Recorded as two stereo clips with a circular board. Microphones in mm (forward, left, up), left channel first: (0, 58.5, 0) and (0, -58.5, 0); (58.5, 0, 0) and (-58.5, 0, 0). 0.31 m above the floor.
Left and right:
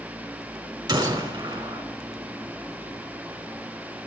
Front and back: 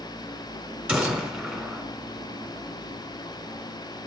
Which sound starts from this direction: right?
A gunshot, at 0.9 s.